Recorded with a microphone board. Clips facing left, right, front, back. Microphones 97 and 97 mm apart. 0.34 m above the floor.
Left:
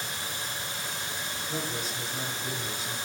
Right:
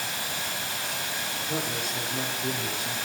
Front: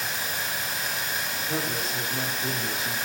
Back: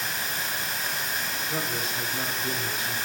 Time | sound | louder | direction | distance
0.0 | running water | right 3 dB, even | 90° right | 9 m
1.5 | a man speaking | right 3 dB, front 2 dB | 55° right | 9.5 m